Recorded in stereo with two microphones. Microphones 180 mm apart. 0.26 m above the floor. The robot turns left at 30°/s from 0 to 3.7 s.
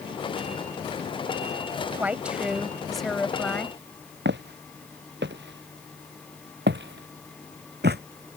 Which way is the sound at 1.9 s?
10° right (ahead or behind).